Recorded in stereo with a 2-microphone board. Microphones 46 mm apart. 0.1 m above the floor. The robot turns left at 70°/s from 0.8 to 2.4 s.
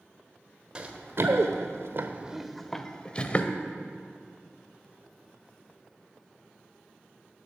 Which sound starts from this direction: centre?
Running footsteps, at 0.8 s.